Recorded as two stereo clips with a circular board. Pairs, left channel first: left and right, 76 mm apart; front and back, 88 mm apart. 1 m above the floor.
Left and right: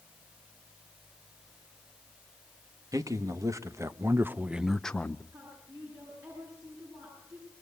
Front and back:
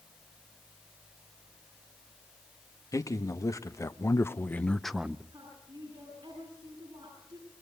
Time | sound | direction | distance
2.9 | a man speaking | 50° right | 1.6 m
5.3 | a woman speaking | 135° right | 9.5 m